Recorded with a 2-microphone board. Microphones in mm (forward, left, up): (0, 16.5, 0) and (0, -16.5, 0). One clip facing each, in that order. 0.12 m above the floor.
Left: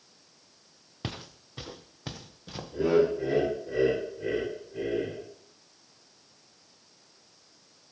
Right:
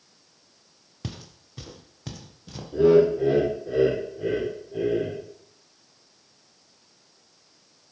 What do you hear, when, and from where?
1.0 s footsteps: 30° left (ahead or behind), 0.6 m; by 2.6 s 20° left (ahead or behind), 1.6 m
2.7 s laughter: 55° right (ahead or behind), 4 m